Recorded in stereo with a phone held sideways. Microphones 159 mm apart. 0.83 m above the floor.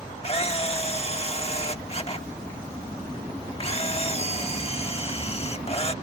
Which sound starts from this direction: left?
A camera shutter, at 0.2 s.